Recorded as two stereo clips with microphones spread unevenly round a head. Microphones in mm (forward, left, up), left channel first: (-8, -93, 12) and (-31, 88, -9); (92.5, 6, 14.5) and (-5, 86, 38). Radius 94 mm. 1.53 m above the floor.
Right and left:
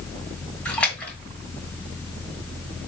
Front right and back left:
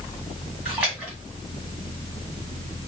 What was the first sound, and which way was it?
A splash, 155° right.